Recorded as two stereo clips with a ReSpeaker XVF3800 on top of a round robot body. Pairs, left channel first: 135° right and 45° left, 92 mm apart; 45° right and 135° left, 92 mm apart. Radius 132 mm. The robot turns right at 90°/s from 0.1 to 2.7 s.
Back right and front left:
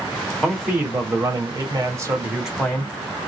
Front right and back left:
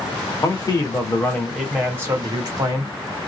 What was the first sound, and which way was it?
A man speaking, 60° right.